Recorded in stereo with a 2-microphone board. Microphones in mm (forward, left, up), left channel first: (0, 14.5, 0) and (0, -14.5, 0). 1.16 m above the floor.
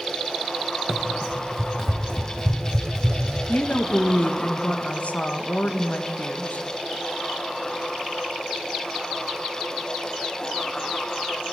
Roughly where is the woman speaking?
Left.